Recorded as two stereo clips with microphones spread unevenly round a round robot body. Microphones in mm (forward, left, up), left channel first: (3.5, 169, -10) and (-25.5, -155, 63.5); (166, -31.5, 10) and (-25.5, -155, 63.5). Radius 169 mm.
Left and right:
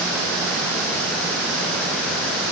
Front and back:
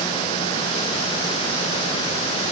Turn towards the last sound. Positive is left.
No sound to turn to.